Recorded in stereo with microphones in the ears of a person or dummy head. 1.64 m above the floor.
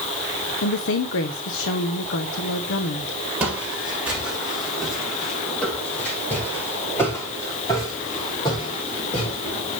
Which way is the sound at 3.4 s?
10° right (ahead or behind).